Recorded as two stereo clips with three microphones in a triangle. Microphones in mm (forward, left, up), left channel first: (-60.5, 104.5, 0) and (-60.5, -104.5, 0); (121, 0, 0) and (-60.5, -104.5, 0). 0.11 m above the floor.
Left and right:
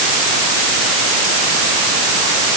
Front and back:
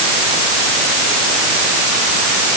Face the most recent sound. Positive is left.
No sound to turn to.